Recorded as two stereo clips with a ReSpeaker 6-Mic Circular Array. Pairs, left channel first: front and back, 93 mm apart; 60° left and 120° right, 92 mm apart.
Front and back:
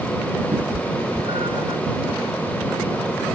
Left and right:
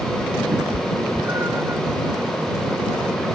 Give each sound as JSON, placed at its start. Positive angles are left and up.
{"t": 0.5, "sound": "a cat meowing", "azimuth_deg": 175}